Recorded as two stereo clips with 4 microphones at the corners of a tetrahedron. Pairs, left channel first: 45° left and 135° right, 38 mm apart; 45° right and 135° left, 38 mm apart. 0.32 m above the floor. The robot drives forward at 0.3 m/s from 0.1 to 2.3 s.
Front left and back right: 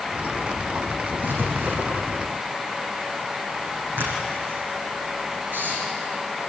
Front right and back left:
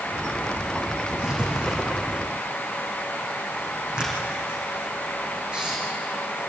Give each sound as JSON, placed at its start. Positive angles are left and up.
{"t": 1.2, "sound": "writing", "azimuth_deg": -155, "distance_m": 5.5}